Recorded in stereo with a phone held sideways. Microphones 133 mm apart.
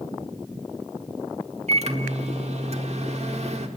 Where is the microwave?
55° right (ahead or behind), 1.6 m.